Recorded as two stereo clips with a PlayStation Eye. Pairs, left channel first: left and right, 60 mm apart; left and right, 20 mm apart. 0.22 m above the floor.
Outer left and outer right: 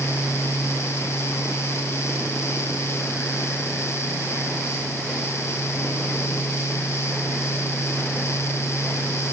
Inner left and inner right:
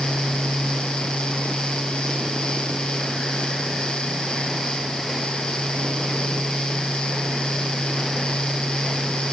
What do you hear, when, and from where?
Only background noise.